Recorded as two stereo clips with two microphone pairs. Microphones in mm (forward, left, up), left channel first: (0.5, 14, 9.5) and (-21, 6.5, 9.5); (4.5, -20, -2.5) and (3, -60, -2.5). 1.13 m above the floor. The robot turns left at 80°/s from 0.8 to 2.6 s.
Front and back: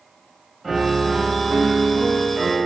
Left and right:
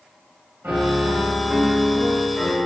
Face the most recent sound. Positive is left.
turn(degrees=145)